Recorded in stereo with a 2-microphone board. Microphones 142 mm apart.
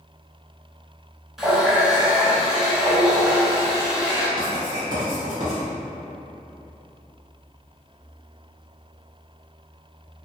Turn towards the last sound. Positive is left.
turn(degrees=-30)  # may be behind; listen again after turning